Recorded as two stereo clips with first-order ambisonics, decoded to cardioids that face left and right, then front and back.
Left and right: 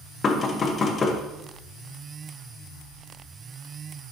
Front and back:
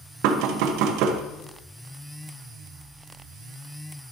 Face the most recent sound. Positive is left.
turn(degrees=160)